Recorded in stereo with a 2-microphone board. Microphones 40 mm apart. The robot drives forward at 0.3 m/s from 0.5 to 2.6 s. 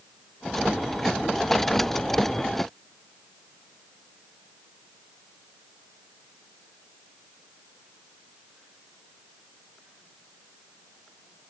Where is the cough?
I don't hear a cough.